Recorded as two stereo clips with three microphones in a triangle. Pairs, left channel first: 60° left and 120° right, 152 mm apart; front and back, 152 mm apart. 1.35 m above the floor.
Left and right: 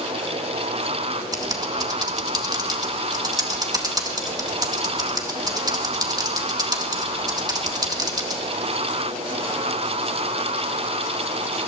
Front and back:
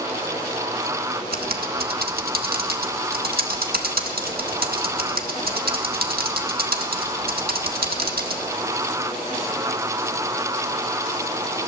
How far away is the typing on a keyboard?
About 1.7 m.